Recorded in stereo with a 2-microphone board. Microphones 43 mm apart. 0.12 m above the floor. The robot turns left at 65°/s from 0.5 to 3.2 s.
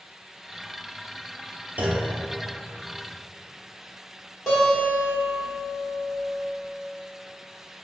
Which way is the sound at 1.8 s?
40° right (ahead or behind).